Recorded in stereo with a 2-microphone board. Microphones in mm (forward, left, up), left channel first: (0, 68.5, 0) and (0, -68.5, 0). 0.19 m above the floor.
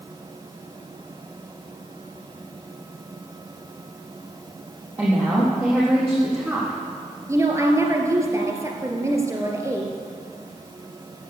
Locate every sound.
5.0 s a woman speaking: 10° right (ahead or behind), 6.5 m
7.3 s a woman speaking: 20° right (ahead or behind), 3 m